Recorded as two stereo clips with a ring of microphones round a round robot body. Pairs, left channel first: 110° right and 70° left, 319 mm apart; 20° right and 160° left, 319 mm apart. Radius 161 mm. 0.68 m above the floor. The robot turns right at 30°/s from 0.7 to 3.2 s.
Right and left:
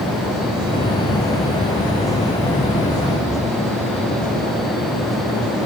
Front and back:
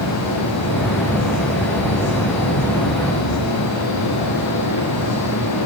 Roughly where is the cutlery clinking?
No cutlery clinking in this recording.